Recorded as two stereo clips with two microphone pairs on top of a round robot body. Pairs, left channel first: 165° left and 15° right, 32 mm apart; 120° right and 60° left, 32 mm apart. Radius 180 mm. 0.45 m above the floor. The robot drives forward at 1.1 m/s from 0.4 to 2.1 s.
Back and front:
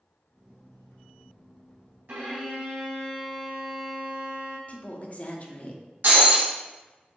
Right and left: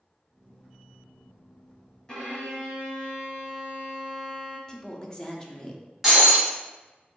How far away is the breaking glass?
About 1.4 m.